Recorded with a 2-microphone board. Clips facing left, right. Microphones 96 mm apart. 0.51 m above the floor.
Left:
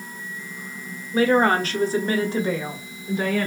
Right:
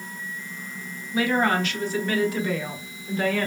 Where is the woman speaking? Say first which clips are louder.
Left 4 dB; 40° left (ahead or behind), 1.0 m; by 3.5 s 10° left (ahead or behind), 1.2 m.